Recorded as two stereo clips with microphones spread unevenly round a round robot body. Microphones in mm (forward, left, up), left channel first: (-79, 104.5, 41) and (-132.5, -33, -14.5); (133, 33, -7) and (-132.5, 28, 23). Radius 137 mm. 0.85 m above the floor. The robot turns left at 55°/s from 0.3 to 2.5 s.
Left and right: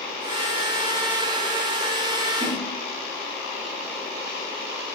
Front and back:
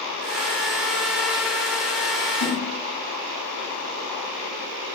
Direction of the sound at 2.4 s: 30° right.